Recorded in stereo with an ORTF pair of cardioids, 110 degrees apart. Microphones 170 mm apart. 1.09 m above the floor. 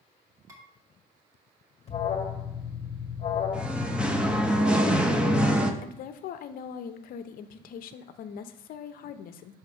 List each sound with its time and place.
0.5 s dishes clattering: 20° right, 1.9 m
1.9 s an alarm: 35° left, 1.5 m
3.5 s singing: 5° right, 0.7 m
5.8 s a woman speaking: 60° left, 0.7 m